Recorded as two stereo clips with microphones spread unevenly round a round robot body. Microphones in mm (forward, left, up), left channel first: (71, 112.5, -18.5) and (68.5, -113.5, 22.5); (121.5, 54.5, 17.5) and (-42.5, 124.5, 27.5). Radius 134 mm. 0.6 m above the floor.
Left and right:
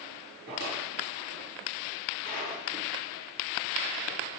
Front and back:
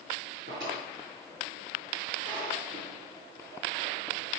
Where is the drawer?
150° right, 6.5 m.